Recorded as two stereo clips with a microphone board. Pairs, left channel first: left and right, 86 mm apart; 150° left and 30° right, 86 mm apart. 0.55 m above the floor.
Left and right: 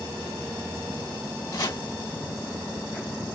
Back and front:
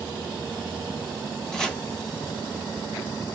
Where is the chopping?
65° left, 1.4 m.